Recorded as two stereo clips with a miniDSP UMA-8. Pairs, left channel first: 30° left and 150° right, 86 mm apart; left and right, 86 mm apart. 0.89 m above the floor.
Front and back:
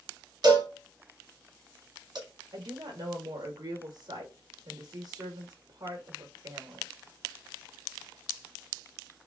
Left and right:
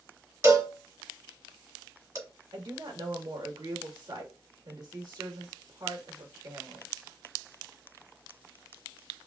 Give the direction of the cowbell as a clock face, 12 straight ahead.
5 o'clock.